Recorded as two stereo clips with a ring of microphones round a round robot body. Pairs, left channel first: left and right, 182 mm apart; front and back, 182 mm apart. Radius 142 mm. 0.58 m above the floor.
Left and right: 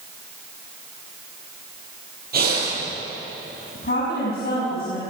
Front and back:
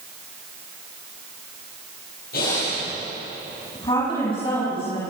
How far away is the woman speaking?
About 6.5 m.